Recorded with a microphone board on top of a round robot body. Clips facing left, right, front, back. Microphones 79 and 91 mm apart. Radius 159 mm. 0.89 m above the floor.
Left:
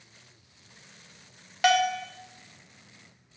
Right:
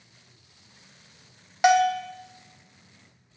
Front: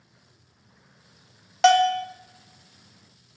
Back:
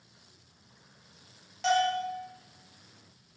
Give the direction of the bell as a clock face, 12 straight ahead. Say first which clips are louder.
Right 4 dB, front 9 dB; 1 o'clock.